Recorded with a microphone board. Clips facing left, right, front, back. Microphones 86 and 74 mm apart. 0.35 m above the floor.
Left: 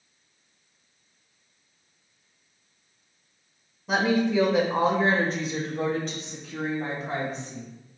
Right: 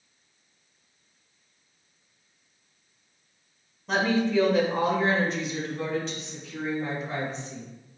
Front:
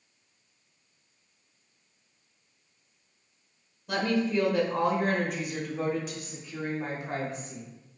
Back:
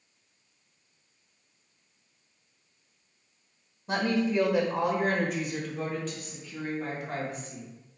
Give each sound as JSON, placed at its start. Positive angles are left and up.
{"t": 3.9, "sound": "a woman speaking", "azimuth_deg": 170, "distance_m": 1.0}